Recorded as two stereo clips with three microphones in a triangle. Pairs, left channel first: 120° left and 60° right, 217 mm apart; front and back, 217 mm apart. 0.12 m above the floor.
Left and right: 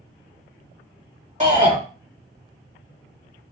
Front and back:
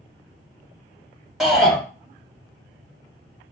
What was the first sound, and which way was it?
A shout, 90° right.